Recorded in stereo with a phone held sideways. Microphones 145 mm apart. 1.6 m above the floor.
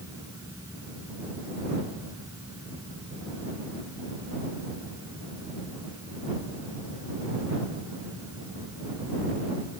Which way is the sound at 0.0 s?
20° right (ahead or behind).